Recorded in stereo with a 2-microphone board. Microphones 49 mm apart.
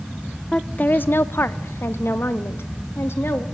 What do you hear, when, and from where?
0.5 s a woman speaking: 20° left (ahead or behind), 0.5 m; by 3.4 s 60° left (ahead or behind), 1.8 m